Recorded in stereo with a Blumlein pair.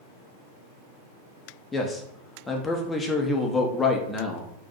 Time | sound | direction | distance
1.7 | a man speaking | 10° left | 0.6 m